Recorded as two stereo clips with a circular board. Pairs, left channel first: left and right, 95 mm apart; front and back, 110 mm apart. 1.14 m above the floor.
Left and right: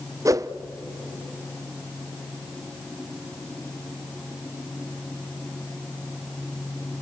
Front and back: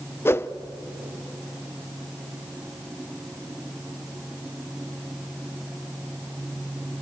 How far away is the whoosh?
About 0.6 m.